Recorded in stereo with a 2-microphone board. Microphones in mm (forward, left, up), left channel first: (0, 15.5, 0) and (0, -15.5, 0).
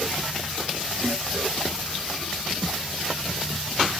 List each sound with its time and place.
1.0 s a snare drum: 75° left (ahead or behind), 3 m